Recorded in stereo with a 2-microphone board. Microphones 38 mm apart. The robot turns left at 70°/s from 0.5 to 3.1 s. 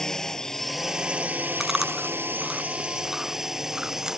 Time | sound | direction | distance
0.0 | a drone | 15° left | ?
1.6 | chewing | 5° right (ahead or behind) | ?